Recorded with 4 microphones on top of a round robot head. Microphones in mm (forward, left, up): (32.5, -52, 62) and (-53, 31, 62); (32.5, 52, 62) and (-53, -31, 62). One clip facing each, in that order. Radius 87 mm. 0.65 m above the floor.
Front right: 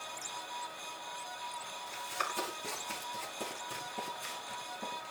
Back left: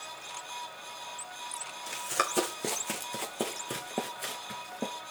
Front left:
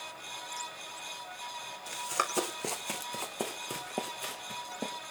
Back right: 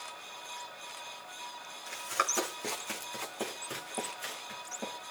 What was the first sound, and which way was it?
Running footsteps, 115° left.